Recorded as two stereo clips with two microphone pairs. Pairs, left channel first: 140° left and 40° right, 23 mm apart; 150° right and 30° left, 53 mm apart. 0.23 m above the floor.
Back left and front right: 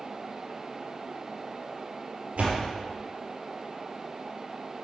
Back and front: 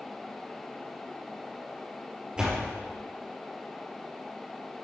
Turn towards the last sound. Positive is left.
turn(degrees=-45)